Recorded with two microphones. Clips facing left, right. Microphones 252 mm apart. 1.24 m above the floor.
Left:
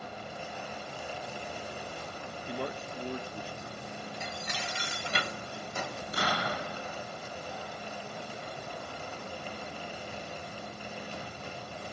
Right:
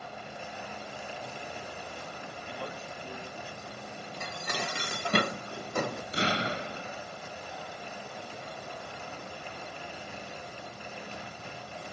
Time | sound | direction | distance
2.5 | a man speaking | 50° left (ahead or behind) | 1.2 m
4.2 | dishes clattering | 60° right (ahead or behind) | 0.5 m
6.1 | an explosion | 25° right (ahead or behind) | 0.6 m